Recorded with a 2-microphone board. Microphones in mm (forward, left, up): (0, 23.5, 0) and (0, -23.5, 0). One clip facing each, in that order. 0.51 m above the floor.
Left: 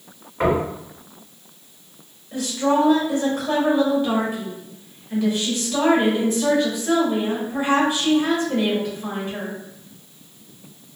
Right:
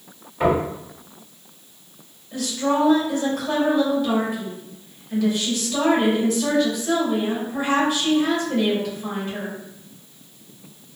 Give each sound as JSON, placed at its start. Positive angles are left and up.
{"t": 0.4, "sound": "knocking", "side_deg": 65, "distance_m": 1.9}
{"t": 2.3, "sound": "a woman speaking", "side_deg": 25, "distance_m": 1.5}